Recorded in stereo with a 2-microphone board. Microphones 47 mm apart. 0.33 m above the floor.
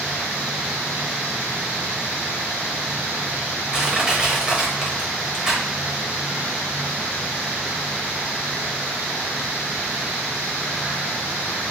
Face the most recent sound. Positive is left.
turn(degrees=-20)  # may be behind; listen again after turning